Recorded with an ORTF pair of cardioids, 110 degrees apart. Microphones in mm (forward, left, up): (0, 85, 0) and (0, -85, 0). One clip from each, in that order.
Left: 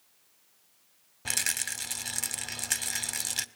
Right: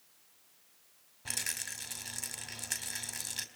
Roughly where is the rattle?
Ahead left.